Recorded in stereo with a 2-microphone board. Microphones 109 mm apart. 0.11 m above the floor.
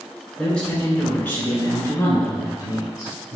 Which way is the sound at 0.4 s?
5° left (ahead or behind).